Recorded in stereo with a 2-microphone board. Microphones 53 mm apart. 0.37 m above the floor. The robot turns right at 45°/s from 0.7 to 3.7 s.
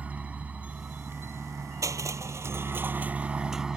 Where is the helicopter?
150° right; by 3.8 s 15° right.